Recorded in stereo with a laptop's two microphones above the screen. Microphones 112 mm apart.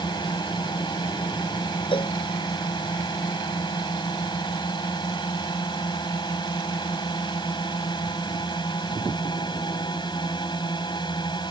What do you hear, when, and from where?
0.0 s a drone: 40° left (ahead or behind)
1.9 s a cowbell: 50° left (ahead or behind)